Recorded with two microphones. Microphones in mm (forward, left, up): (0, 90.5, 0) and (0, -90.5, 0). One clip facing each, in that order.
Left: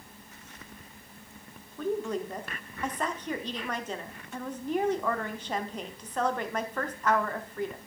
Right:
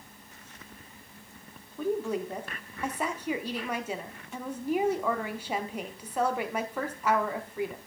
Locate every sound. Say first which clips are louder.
1.8 s a woman speaking: right 1 dB; 10° right (ahead or behind), 0.8 m